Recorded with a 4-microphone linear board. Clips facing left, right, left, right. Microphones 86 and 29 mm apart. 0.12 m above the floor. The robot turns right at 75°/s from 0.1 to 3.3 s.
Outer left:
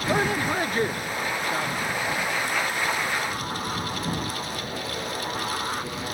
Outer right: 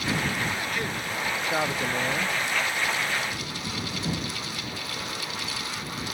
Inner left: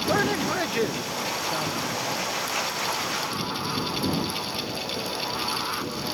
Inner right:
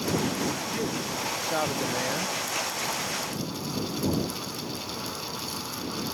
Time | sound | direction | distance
0.1 | a man speaking | 95° left | ?